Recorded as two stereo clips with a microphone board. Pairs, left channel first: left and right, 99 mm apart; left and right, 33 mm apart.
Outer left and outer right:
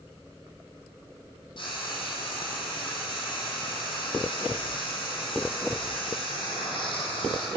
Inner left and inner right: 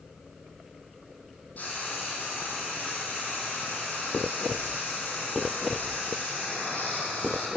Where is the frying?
55° left (ahead or behind), 2.5 m.